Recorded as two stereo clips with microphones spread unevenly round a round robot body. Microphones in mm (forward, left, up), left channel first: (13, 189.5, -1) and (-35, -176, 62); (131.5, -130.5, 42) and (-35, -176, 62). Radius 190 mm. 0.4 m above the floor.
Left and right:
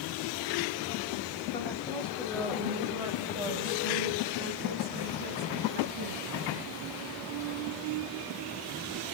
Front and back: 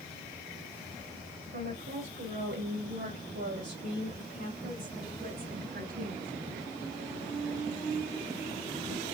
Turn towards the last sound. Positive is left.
turn(degrees=-145)